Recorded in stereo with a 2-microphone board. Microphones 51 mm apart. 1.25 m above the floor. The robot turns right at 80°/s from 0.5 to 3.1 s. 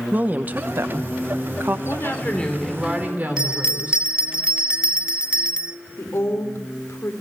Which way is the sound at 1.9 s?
115° left.